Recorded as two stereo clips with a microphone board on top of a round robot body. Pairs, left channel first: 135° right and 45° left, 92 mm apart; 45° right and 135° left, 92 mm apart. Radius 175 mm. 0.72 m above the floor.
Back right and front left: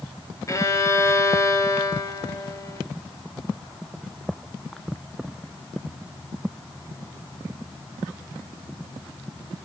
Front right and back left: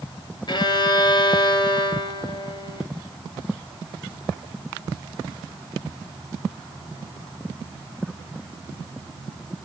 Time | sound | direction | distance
0.5 | a violin | 80° right | 2.5 m